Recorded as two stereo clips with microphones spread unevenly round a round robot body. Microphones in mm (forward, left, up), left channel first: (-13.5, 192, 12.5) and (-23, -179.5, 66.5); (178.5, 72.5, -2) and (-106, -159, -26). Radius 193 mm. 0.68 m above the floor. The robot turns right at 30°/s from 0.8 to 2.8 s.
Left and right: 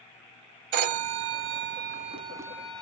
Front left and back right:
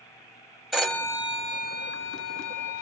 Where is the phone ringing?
55° right, 0.7 m; by 2.8 s 5° left, 0.7 m.